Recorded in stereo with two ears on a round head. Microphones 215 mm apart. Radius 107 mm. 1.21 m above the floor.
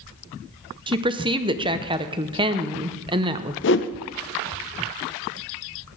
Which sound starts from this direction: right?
A woman speaking, at 0.9 s.